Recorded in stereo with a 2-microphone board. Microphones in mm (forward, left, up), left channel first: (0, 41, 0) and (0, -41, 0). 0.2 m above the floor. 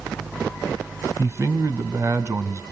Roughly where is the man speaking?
Right.